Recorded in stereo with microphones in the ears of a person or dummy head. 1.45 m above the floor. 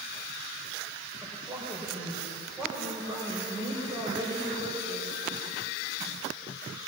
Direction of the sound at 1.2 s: 15° right (ahead or behind).